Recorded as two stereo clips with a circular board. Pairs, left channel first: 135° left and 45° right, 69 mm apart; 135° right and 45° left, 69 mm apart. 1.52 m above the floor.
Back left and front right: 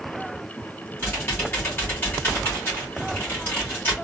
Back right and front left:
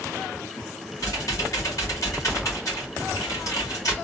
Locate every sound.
1.0 s typing on a keyboard: 170° right, 2 m